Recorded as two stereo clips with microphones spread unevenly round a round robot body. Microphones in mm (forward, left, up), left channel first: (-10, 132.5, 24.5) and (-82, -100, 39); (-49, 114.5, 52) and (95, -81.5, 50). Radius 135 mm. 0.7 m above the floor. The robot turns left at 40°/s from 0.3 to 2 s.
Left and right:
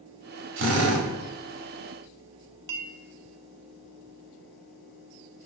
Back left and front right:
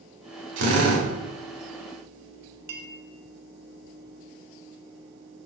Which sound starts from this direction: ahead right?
A drill, at 0.6 s.